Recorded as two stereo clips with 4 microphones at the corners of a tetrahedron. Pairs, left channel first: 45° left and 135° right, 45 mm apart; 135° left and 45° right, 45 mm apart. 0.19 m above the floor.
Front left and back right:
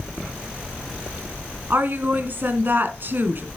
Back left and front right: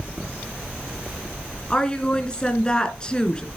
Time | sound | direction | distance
1.7 | a woman speaking | 160° right | 2 m